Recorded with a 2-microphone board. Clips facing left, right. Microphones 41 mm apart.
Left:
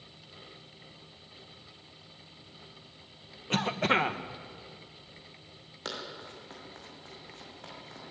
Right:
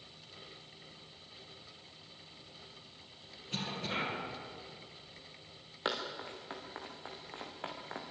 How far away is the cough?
About 2.0 m.